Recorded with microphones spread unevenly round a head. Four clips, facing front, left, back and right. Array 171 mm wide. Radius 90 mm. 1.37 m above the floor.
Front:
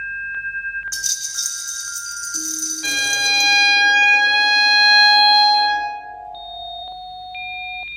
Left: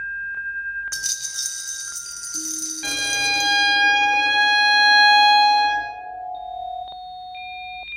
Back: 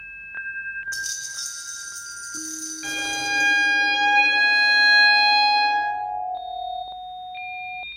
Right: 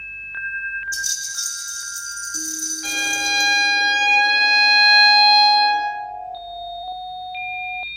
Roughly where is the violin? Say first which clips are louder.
Right 1 dB, front 5 dB; left.